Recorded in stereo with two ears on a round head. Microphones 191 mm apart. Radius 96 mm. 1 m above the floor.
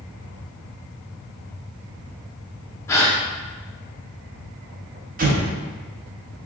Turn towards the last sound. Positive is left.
turn(degrees=-40)  # may be behind; listen again after turning